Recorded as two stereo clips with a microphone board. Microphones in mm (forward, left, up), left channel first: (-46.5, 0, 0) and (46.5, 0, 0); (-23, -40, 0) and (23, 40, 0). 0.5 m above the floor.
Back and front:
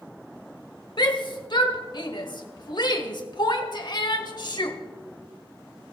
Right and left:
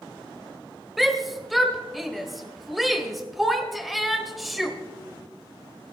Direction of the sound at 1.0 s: 150° left.